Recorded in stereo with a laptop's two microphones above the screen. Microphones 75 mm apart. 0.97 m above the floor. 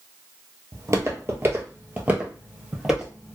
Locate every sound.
0.7 s footsteps: 40° right (ahead or behind), 1.2 m; by 3.4 s centre (ahead or behind), 1.5 m